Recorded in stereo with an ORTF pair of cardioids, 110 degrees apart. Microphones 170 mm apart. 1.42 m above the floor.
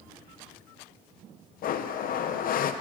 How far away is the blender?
About 0.8 m.